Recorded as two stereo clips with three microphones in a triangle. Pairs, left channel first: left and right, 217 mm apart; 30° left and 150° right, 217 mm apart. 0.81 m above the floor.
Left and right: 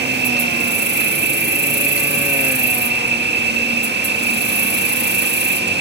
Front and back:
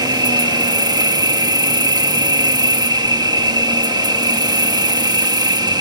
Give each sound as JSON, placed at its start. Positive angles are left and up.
{"t": 0.0, "sound": "an insect", "azimuth_deg": -85}